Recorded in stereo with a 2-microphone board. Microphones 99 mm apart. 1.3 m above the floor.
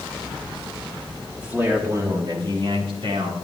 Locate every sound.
1.4 s a man speaking: 10° right (ahead or behind), 1.9 m; by 3.4 s 75° right (ahead or behind), 3 m